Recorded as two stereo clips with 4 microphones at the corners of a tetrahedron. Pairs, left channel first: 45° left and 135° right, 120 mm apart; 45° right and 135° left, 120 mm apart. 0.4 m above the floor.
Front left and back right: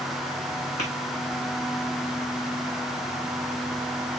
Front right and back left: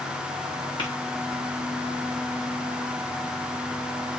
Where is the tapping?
10° left, 5.5 m.